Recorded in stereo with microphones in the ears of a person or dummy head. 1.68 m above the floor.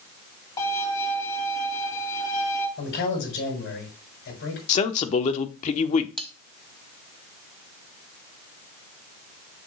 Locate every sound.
0.6 s a violin: 25° left (ahead or behind), 2.5 m
2.8 s a man speaking: 75° left (ahead or behind), 6.5 m
4.7 s a man speaking: 45° left (ahead or behind), 1.0 m
6.2 s cutlery clinking: 5° left (ahead or behind), 1.1 m